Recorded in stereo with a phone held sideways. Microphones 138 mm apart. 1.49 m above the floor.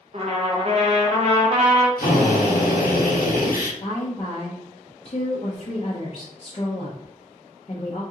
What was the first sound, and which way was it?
A trumpet, 45° right (ahead or behind).